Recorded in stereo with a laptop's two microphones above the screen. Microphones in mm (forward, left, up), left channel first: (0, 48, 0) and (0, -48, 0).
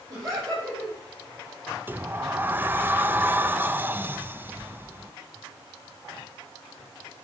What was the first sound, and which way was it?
Laughter, 40° right (ahead or behind).